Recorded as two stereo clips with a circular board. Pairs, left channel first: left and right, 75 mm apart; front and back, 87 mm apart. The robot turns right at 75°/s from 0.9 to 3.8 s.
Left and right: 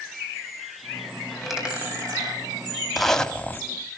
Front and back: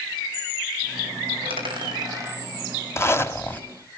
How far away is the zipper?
About 1.1 m.